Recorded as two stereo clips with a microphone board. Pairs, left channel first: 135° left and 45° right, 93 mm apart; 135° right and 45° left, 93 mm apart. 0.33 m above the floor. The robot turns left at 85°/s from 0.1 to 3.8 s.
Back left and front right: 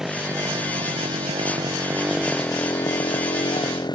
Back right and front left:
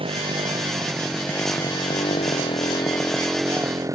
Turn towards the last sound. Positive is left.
turn(degrees=100)